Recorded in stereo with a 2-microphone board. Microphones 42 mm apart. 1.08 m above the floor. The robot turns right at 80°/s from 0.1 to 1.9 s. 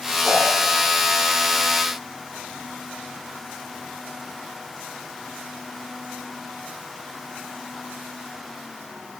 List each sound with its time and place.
0.2 s a whoosh: 25° right (ahead or behind), 6.5 m; by 0.4 s 10° right (ahead or behind), 6.5 m